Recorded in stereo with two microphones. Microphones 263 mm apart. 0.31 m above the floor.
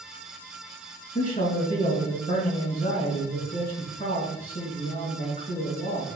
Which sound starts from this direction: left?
A man speaking, at 1.1 s.